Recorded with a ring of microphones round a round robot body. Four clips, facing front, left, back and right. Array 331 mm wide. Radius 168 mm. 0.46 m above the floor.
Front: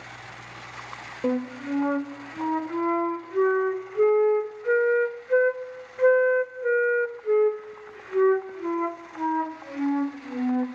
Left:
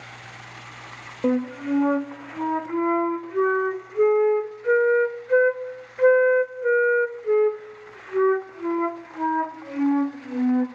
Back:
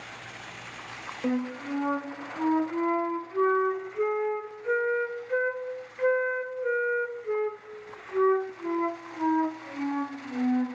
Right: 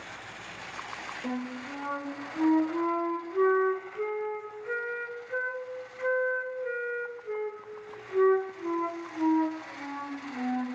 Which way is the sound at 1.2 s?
70° left.